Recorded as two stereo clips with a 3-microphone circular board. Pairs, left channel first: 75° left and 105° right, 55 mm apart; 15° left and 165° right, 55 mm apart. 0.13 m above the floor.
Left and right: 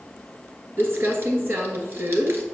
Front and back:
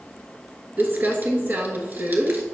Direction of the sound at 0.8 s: 130° right.